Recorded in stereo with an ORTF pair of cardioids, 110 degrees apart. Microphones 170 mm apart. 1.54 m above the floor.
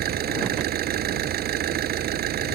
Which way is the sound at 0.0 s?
65° right.